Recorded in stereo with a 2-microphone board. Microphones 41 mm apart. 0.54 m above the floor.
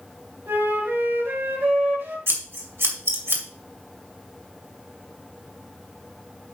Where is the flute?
75° right (ahead or behind), 3.5 m.